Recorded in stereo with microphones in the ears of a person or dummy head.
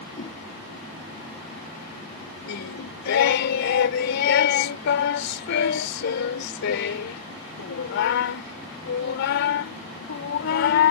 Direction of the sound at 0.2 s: 50° left (ahead or behind).